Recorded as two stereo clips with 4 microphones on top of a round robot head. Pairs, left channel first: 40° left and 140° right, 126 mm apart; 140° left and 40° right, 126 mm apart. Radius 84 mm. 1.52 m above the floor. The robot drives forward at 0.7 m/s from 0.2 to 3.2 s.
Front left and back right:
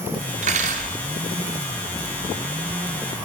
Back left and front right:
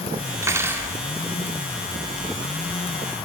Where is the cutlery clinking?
105° right, 2.5 m; by 0.9 s 115° right, 2.5 m.